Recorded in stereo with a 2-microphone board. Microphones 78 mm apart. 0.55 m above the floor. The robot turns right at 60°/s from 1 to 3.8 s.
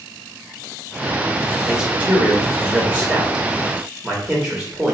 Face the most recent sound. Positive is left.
turn(degrees=-10)  # may be behind; listen again after turning